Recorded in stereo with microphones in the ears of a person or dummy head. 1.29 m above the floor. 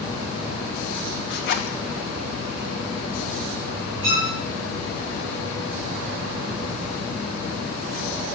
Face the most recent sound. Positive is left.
turn(degrees=-10)  # may be behind; listen again after turning